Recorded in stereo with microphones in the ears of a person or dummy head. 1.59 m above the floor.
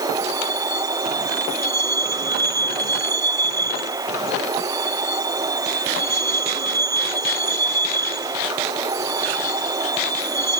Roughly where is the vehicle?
Centre.